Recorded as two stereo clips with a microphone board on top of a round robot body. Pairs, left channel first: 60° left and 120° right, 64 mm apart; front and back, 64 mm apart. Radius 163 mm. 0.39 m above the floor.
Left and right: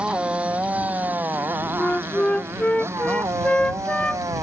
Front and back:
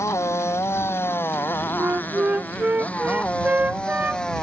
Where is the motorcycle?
45° right; by 4.4 s 80° right.